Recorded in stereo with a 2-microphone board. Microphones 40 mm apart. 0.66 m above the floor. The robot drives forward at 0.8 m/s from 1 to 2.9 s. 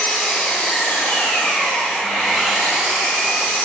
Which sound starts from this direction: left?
An engine running, at 0.0 s.